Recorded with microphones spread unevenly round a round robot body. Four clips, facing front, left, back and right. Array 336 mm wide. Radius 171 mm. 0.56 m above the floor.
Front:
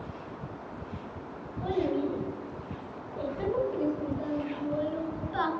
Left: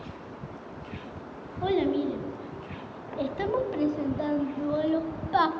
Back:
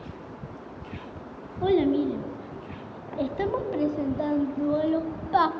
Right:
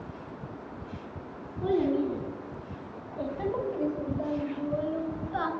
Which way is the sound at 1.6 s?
Straight behind.